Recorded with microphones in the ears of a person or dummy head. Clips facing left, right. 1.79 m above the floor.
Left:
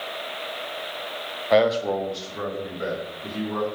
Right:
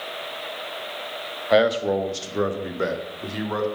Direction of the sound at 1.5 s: Centre (ahead or behind).